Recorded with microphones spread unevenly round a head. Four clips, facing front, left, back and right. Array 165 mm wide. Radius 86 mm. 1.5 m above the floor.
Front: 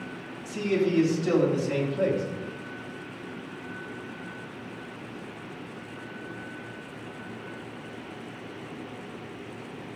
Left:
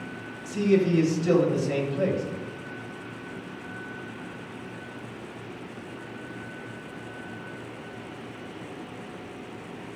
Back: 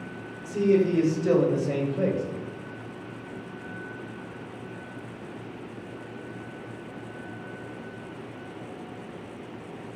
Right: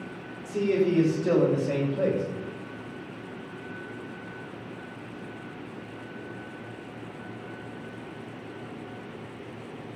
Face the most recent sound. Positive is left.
turn(degrees=-150)